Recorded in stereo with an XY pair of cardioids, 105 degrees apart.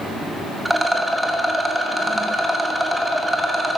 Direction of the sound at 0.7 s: 5° right.